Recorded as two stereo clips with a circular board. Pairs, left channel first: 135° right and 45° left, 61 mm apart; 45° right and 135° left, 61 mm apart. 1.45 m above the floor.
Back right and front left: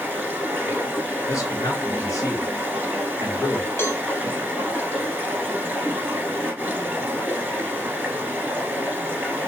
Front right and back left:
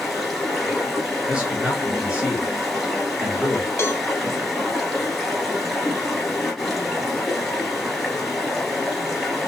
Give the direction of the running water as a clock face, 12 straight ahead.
10 o'clock.